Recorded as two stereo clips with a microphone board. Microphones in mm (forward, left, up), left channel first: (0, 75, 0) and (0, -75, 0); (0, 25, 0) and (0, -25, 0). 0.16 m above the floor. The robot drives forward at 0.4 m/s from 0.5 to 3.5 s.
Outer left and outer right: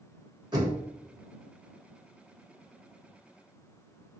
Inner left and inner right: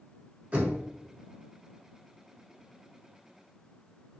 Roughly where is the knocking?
Right.